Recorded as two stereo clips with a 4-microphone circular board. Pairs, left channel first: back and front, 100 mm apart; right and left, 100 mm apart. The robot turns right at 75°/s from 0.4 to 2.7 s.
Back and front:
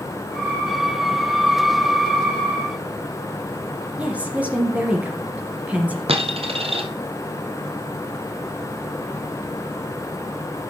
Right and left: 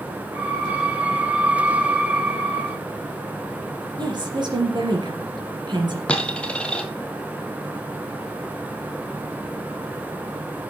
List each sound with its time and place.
4.0 s a woman speaking: 75° left, 2.5 m
6.1 s a dropped coin: 10° right, 1.4 m